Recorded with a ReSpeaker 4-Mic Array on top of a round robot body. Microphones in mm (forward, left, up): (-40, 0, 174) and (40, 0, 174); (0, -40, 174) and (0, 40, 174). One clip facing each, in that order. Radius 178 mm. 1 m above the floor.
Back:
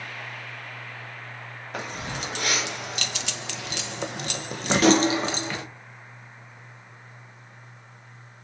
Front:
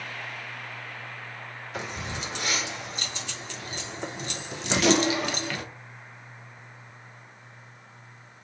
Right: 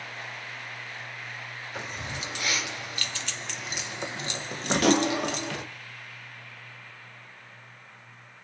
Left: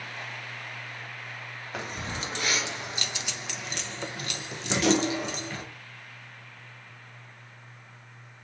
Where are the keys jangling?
140° left, 1.5 m; by 5.7 s 110° right, 1.1 m.